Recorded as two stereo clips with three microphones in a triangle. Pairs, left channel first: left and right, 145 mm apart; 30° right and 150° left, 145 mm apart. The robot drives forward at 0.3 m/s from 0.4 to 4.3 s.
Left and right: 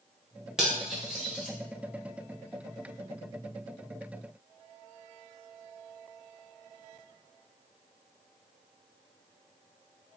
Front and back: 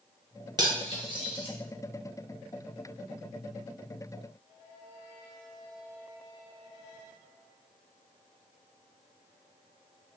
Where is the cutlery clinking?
175° right, 0.7 m.